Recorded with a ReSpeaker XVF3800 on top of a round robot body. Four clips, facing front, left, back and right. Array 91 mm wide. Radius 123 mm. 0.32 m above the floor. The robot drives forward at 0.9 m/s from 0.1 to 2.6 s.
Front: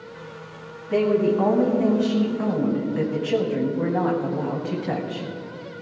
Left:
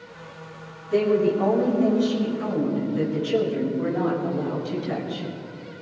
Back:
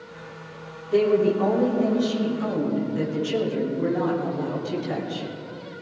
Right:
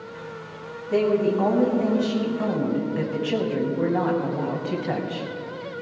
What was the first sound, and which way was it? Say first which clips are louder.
A woman speaking: left 1 dB, even; 35° right.